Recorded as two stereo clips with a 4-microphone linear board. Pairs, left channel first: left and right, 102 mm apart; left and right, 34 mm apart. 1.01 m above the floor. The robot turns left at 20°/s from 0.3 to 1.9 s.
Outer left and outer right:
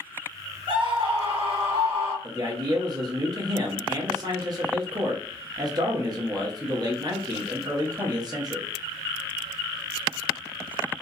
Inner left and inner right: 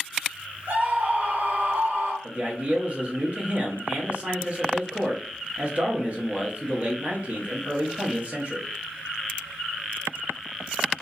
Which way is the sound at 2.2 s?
40° right (ahead or behind).